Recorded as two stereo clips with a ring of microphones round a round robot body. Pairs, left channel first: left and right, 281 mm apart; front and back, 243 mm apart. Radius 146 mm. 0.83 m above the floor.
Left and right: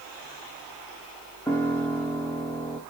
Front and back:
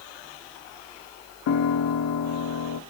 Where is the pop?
I don't hear a pop.